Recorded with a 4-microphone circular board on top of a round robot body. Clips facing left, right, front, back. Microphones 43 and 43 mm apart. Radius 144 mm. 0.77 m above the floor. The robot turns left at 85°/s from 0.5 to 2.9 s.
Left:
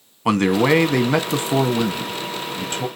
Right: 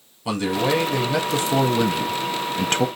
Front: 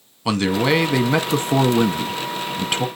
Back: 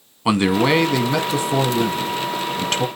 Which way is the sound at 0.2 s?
110° left.